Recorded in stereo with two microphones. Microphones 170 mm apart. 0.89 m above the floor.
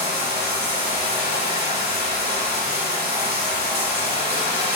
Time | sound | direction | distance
0.0 | running water | 80° right | 3 m